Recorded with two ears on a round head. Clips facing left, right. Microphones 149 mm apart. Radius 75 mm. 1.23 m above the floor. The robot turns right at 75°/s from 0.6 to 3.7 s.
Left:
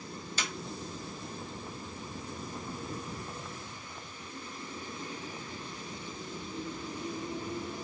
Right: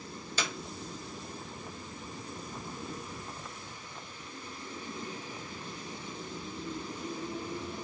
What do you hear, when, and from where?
0.4 s a clap: 70° right (ahead or behind)